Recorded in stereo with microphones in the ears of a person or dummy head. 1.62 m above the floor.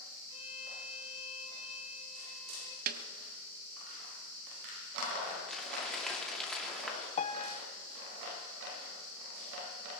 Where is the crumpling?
10° left (ahead or behind), 2.5 m.